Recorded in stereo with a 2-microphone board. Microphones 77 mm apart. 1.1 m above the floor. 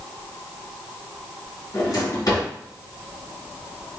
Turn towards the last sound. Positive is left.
turn(degrees=55)  # may be behind; listen again after turning